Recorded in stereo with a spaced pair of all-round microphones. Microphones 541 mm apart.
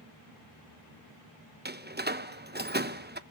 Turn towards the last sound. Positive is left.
turn(degrees=-20)  # may be behind; listen again after turning